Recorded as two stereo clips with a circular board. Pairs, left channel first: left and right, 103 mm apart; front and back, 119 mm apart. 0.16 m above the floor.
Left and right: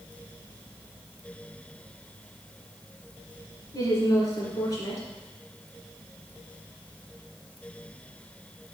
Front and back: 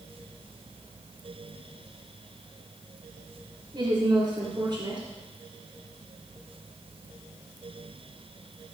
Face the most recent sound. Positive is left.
turn(degrees=135)